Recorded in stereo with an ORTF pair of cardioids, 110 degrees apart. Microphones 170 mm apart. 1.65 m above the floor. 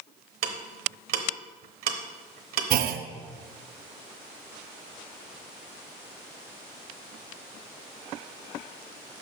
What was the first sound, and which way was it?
Ticking, 60° right.